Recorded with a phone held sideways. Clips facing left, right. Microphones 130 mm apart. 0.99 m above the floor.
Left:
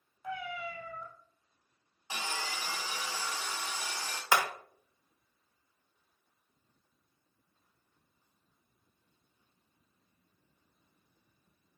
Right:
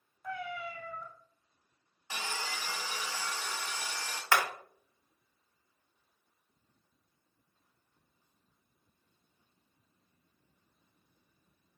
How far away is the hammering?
About 0.6 m.